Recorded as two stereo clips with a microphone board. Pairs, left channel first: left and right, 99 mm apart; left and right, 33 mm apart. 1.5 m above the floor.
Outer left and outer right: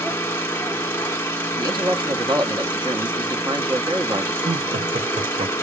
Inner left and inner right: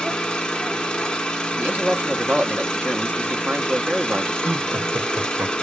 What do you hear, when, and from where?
0.0 s an engine running: 25° left (ahead or behind), 1.2 m
1.6 s a man speaking: 50° right (ahead or behind), 1.0 m
4.4 s laughter: 85° right, 0.6 m